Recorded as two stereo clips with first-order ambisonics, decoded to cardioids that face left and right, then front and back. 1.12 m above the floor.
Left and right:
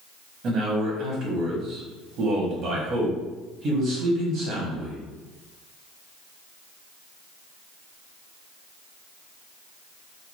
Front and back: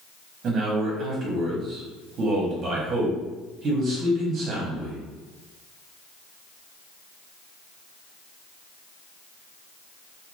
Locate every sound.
0.4 s a man speaking: 130° right, 1.0 m